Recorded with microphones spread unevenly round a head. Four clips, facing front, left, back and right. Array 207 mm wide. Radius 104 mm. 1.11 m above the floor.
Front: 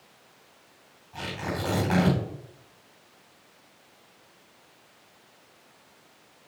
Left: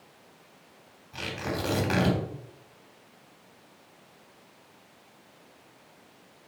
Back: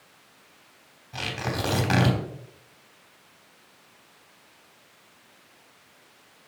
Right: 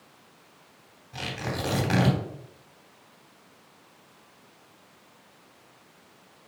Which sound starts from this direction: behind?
Tearing paper, at 1.1 s.